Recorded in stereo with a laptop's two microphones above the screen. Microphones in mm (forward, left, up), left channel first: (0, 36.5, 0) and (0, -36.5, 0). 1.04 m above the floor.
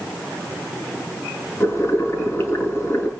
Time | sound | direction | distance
1.6 | boiling | 35° left (ahead or behind) | 4.5 m